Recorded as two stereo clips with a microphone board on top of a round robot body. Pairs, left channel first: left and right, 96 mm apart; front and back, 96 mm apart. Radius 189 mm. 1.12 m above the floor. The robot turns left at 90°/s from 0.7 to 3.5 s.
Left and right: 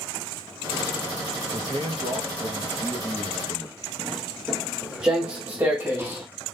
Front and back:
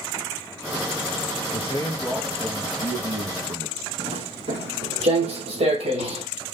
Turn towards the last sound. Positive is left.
turn(degrees=-155)